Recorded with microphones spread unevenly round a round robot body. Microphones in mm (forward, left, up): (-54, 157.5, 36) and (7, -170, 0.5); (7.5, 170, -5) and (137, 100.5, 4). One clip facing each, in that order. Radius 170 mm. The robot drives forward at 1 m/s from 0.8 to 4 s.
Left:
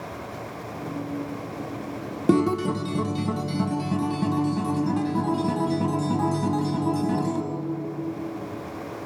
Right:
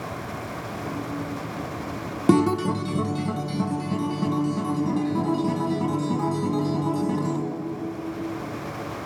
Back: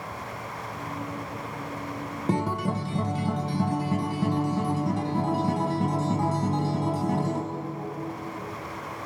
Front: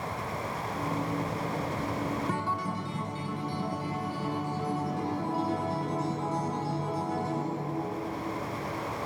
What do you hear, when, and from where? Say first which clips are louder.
2.3 s a guitar: right 1 dB, back 5 dB; 150° right, 0.5 m; by 7.4 s 175° right, 2 m